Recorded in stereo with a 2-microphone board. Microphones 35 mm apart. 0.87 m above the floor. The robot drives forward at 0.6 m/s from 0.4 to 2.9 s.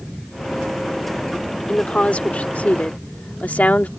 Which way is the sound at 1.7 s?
35° left (ahead or behind).